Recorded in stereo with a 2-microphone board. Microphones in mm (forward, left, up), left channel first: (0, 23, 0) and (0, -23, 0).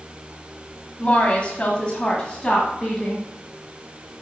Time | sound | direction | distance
1.0 | a woman speaking | 30° left (ahead or behind) | 1.4 m